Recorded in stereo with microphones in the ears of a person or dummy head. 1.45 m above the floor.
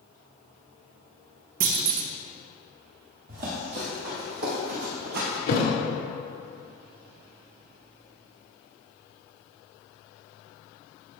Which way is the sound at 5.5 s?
50° left (ahead or behind).